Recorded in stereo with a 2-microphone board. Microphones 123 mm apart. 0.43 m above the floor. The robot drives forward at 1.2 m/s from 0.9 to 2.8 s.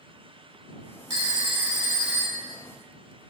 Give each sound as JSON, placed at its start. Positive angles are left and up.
{"t": 1.1, "sound": "a phone ringing", "side_deg": -35, "distance_m": 1.6}